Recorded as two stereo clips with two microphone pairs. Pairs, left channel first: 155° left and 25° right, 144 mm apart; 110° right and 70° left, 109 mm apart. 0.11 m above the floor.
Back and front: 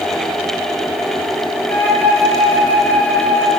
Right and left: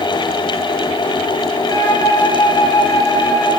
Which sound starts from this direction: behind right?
A flute, at 1.7 s.